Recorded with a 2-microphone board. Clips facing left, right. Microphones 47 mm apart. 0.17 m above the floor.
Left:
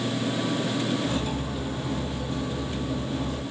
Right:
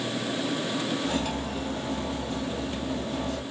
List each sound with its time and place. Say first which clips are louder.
1.0 s cutlery clinking: even; 65° right (ahead or behind), 2 m